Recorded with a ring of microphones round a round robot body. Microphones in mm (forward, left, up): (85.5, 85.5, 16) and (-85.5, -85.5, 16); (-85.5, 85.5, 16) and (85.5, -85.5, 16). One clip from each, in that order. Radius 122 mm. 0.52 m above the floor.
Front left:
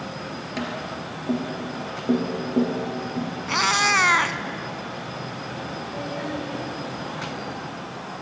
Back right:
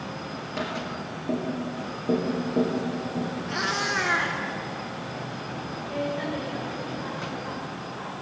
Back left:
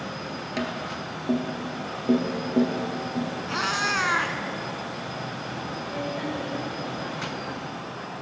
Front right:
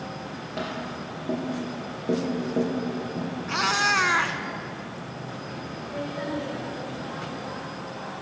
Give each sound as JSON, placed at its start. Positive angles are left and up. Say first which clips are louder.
{"t": 0.6, "sound": "tapping", "louder": "even, back left 1 dB", "azimuth_deg": 110, "distance_m": 2.5}
{"t": 3.5, "sound": "a cat meowing", "louder": "front left 8 dB, front right 3 dB", "azimuth_deg": 40, "distance_m": 0.5}
{"t": 5.9, "sound": "a woman speaking", "louder": "back right 3 dB, front right 1 dB", "azimuth_deg": 140, "distance_m": 3.0}